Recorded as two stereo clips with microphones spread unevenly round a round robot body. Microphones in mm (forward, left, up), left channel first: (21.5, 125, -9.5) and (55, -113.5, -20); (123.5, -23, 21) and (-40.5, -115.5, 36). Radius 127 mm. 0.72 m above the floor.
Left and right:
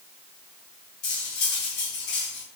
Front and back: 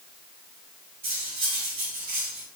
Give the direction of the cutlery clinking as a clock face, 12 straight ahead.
8 o'clock.